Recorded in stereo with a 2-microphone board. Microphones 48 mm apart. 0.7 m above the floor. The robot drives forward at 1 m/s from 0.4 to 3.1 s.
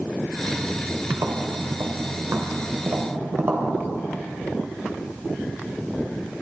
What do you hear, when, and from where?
1.1 s tapping: 70° right (ahead or behind), 2 m; by 3.7 s 55° right (ahead or behind), 2.5 m